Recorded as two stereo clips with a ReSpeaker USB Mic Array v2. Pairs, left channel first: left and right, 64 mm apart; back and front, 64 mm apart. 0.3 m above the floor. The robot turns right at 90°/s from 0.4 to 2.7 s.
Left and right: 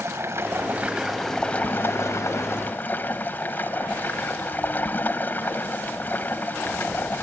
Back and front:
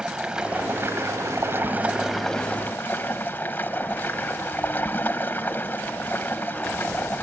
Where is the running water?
70° right, 1.4 m; by 7.2 s 135° left, 1.4 m.